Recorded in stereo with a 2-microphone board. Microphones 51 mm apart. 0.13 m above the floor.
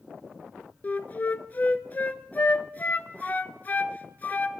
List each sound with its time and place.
0.8 s a flute: 35° left (ahead or behind), 0.5 m